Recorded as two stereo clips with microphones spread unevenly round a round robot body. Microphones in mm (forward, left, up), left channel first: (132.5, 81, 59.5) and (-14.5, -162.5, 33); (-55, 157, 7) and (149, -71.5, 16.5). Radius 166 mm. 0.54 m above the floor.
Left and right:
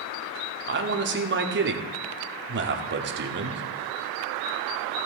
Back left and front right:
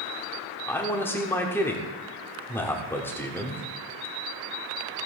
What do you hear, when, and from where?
0.7 s a man speaking: 150° right, 1.2 m